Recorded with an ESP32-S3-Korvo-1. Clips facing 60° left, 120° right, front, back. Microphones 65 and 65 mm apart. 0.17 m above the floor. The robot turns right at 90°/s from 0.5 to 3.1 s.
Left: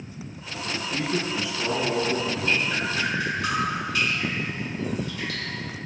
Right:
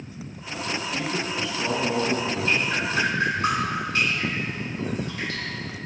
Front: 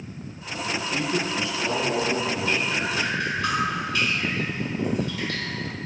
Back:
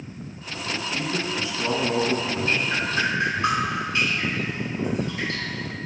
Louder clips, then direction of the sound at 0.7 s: Left 2 dB, front 2 dB; 75° left.